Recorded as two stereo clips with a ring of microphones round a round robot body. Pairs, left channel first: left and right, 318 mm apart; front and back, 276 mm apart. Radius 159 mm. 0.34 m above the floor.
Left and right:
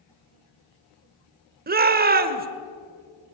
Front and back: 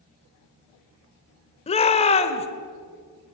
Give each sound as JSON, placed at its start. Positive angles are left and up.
{"t": 1.7, "sound": "a shout", "azimuth_deg": -55, "distance_m": 1.3}